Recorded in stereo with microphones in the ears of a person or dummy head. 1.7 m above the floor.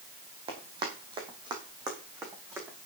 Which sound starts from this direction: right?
Running footsteps, at 0.5 s.